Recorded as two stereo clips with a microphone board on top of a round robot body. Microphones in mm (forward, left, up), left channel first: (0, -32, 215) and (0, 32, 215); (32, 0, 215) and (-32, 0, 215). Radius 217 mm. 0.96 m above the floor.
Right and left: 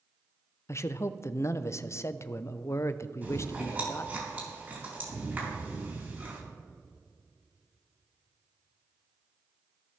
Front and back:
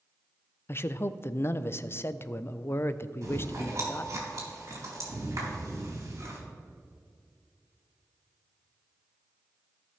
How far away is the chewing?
About 3.5 m.